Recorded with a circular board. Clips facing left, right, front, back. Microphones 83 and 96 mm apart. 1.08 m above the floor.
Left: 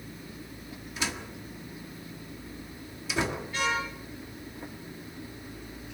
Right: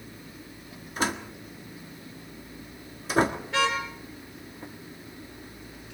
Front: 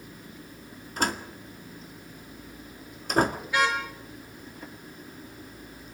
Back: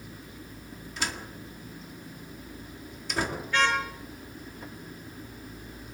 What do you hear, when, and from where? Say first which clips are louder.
1.0 s a door slam: right 6 dB, front 6 dB; 45° right, 1.6 m
3.5 s a car horn: right 4 dB, even; 80° right, 8 m